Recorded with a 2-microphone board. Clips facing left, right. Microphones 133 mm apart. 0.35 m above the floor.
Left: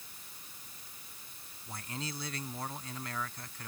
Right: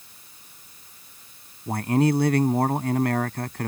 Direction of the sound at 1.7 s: 65° right (ahead or behind).